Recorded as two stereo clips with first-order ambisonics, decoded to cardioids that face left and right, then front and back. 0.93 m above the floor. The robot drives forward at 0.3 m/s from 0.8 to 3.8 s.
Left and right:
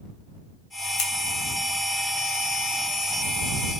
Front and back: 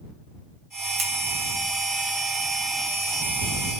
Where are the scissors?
120° left, 0.6 m; by 1.1 s 125° left, 0.7 m.